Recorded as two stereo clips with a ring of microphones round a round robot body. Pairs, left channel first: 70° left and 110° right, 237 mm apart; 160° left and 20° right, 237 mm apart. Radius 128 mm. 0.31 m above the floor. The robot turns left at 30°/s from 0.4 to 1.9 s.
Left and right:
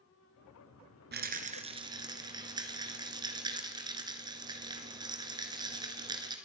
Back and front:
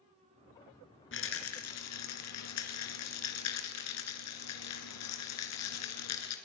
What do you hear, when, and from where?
1.1 s a rattle: 160° right, 2.5 m; by 6.4 s 175° left, 2.5 m